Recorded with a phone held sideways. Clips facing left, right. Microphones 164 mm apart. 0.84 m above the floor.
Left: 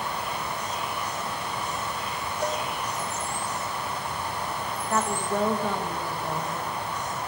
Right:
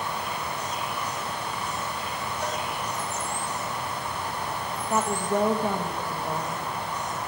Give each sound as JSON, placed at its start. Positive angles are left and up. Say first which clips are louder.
{"t": 2.4, "sound": "a cowbell", "louder": "left 4 dB", "side_deg": 45, "distance_m": 4.5}
{"t": 4.9, "sound": "a woman speaking", "louder": "right 2 dB", "side_deg": -15, "distance_m": 0.9}